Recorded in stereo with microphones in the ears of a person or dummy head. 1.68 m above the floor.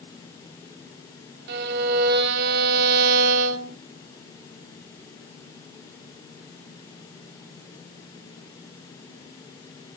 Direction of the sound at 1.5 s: 65° right (ahead or behind).